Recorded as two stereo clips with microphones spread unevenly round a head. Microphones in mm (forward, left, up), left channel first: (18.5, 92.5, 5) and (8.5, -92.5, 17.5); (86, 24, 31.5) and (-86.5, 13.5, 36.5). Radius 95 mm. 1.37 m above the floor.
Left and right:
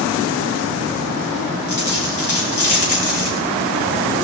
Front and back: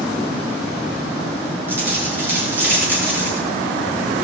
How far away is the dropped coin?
About 6 m.